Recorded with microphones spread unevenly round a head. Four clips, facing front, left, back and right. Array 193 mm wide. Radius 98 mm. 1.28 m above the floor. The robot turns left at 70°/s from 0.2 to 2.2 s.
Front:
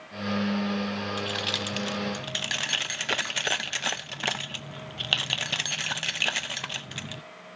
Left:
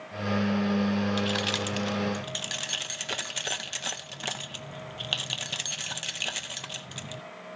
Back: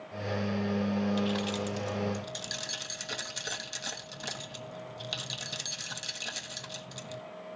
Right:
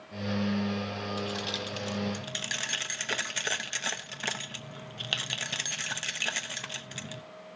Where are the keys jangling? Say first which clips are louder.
Left 5 dB, back 1 dB; 70° left, 0.9 m; by 7.2 s 5° right, 0.9 m.